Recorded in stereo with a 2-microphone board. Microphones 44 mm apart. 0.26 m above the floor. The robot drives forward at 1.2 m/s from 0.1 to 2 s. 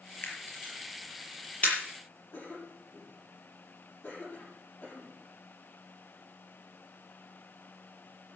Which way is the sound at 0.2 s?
45° left (ahead or behind).